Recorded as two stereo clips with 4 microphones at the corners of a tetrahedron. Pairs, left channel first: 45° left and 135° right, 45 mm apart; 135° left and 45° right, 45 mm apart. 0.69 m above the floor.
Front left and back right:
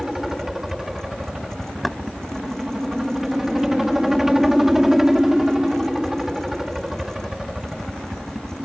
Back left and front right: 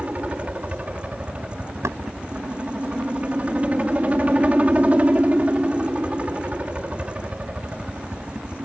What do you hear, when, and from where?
0.0 s a helicopter: 60° right
1.8 s knocking: 50° right